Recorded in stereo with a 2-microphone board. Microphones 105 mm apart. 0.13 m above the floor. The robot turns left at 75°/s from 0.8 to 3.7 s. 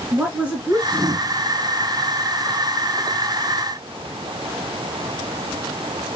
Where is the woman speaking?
15° right (ahead or behind), 1.4 m; by 1.3 s 5° right (ahead or behind), 1.4 m.